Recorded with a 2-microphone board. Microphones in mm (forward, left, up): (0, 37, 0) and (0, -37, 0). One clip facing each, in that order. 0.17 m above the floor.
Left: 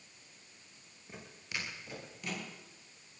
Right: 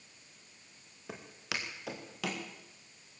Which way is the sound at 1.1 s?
85° right.